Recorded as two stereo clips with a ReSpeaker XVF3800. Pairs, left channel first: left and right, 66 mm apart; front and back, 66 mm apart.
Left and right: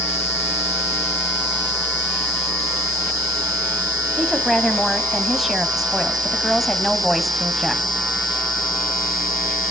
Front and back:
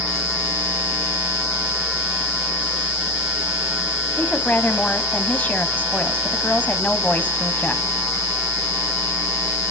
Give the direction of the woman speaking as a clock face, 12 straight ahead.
12 o'clock.